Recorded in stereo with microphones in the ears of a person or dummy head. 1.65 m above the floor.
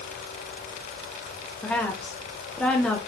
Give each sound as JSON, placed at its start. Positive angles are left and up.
{"t": 1.6, "sound": "a woman speaking", "side_deg": 10, "distance_m": 1.1}